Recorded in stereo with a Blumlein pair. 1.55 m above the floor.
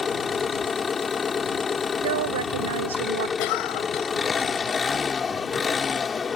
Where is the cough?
45° left.